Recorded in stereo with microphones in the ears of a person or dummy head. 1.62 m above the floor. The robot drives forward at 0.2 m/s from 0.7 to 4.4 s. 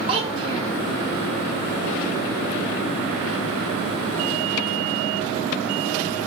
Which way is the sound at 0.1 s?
30° right (ahead or behind).